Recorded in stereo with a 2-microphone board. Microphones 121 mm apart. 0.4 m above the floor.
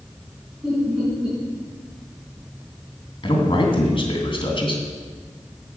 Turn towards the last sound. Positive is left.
turn(degrees=45)  # may be behind; listen again after turning